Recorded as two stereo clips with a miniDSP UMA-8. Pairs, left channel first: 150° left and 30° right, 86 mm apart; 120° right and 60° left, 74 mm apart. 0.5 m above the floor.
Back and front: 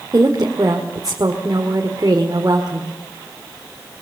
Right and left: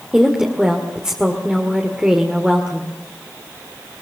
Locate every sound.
0.1 s a woman speaking: 15° right, 1.8 m